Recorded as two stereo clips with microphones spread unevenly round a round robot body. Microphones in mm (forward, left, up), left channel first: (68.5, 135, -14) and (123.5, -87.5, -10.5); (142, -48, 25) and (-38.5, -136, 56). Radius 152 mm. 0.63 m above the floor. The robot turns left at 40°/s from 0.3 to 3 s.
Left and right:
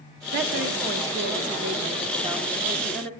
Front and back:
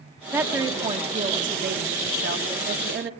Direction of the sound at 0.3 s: 70° right.